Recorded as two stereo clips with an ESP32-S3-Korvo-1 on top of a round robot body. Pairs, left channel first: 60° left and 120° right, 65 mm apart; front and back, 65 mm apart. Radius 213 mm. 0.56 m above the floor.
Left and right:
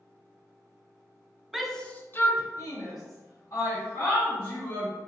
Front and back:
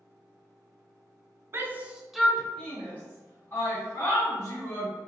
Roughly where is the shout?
Behind left.